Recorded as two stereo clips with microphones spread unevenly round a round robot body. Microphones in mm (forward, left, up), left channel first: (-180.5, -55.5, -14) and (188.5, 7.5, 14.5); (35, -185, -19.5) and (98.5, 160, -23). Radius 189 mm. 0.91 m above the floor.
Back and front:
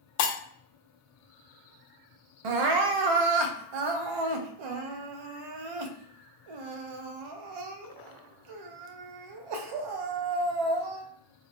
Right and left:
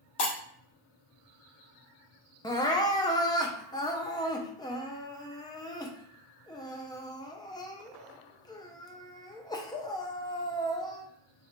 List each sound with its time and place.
0.2 s breaking glass: 155° right, 0.8 m
2.4 s crying: 20° right, 0.5 m